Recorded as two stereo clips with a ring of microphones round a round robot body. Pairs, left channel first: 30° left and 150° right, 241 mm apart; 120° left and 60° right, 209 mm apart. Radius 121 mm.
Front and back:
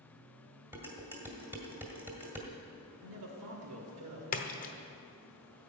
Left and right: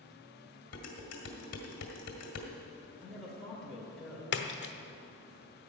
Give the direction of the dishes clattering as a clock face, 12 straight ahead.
8 o'clock.